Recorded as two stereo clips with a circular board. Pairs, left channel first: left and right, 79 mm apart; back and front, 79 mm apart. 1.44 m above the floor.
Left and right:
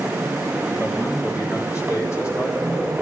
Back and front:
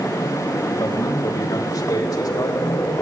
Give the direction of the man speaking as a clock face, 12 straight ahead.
7 o'clock.